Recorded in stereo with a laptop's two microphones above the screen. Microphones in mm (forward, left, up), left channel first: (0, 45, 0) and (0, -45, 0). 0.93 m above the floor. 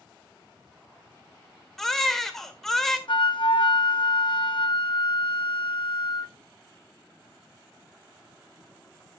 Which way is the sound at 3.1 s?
65° left (ahead or behind).